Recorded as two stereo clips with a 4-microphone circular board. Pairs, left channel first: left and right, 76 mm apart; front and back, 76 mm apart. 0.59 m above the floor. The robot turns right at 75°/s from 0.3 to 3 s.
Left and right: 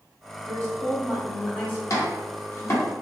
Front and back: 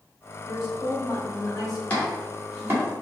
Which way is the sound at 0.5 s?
70° right.